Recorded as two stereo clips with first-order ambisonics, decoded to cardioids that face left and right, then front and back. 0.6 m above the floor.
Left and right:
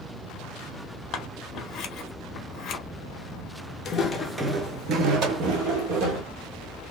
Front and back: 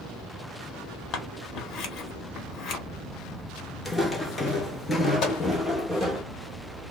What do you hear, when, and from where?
1.1 s scissors: 45° left, 0.8 m
3.9 s footsteps: 80° left, 0.6 m; by 6.2 s 80° right, 1.4 m
5.2 s a microwave: 45° right, 1.4 m